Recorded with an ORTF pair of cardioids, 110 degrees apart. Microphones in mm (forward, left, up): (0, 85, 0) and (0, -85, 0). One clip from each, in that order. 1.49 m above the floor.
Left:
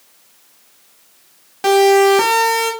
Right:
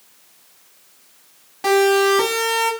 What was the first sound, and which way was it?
A siren, 30° left.